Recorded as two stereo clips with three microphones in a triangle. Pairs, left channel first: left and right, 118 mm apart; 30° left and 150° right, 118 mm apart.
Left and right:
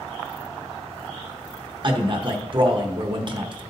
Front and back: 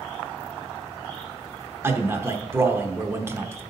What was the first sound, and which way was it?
A man speaking, 90° right.